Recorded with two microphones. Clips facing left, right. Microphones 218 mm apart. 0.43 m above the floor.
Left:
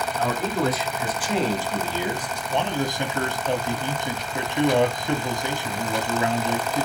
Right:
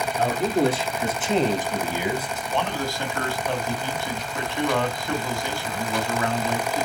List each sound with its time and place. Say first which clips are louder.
0.2 s a man speaking: right 4 dB; 35° right (ahead or behind), 4 m; by 2.4 s 5° right (ahead or behind), 2.5 m
2.5 s a man speaking: left 2 dB; 20° left (ahead or behind), 2.5 m